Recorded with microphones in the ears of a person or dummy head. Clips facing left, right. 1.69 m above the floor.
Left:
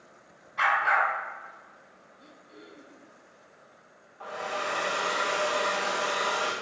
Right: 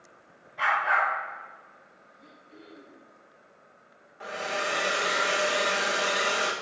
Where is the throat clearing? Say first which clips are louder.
Even; 40° left (ahead or behind), 5 m.